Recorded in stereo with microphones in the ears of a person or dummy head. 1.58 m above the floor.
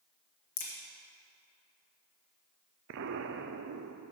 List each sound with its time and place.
0.6 s a crack: 40° left (ahead or behind), 1.4 m
2.9 s an explosion: 65° right (ahead or behind), 0.5 m